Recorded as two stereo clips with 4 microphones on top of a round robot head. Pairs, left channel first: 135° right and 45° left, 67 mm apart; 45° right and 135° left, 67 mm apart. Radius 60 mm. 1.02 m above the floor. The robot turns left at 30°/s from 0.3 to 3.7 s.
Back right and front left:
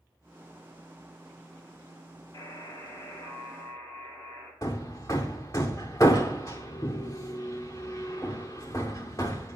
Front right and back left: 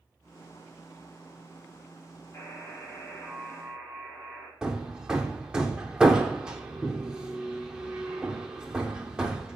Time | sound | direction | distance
2.3 | a buzzer | 100° right | 6 m
4.6 | hammering | 155° right | 0.6 m